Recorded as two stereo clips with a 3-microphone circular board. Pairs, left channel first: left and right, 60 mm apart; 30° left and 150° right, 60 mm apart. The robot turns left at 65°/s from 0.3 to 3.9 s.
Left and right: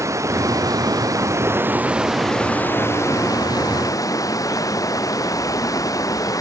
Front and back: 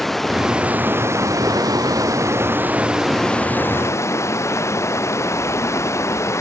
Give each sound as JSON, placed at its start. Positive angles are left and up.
{"t": 0.0, "sound": "running water", "azimuth_deg": -55}